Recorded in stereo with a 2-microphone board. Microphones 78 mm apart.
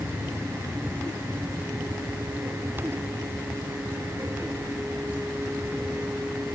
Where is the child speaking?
No child speaking in this recording.